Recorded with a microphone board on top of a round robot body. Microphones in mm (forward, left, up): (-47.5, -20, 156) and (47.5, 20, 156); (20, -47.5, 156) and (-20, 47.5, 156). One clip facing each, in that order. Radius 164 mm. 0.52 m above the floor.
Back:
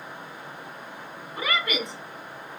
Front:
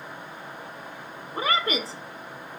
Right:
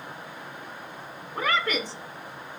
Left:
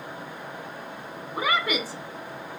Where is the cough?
I don't hear a cough.